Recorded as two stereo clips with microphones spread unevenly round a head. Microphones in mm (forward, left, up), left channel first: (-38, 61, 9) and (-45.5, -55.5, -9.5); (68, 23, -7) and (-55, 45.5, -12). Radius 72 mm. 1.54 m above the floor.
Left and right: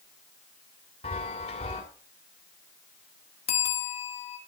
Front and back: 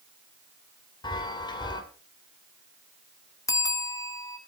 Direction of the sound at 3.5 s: 50° left.